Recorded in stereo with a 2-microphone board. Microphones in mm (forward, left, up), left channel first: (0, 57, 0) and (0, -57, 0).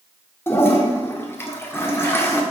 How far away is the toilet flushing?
About 1.7 m.